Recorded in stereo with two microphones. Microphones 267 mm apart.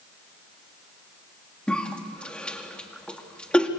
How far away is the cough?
About 2.5 m.